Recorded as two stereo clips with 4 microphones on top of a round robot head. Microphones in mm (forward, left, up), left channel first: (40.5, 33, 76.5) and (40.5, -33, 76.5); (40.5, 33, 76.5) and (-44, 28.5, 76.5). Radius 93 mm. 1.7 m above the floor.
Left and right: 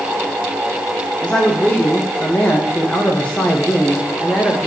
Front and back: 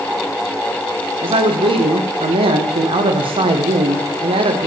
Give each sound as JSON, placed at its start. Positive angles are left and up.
{"t": 1.2, "sound": "a man speaking", "azimuth_deg": 165, "distance_m": 0.9}